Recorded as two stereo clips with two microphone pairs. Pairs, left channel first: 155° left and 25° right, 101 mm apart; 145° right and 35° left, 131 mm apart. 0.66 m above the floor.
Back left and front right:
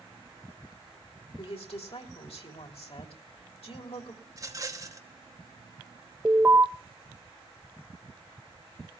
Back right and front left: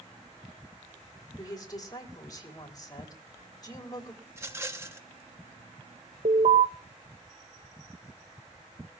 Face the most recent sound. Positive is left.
turn(degrees=45)